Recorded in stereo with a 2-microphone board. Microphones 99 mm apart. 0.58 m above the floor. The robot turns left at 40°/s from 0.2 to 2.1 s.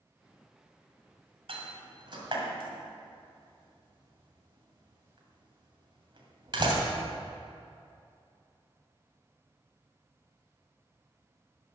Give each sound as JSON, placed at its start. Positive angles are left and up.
{"t": 1.5, "sound": "a door slam", "side_deg": -75, "distance_m": 2.5}